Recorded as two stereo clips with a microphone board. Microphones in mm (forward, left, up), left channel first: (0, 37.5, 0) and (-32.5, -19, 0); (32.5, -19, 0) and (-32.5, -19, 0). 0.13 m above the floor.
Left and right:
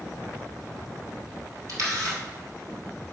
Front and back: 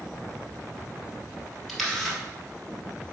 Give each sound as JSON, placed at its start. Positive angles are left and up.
{"t": 1.7, "sound": "a camera shutter", "azimuth_deg": -90, "distance_m": 1.5}